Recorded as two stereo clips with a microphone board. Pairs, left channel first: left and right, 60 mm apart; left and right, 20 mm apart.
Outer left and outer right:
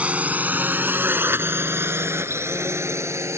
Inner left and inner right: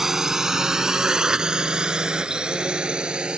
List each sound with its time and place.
0.0 s a drone: 20° right (ahead or behind); by 3.4 s 50° right (ahead or behind)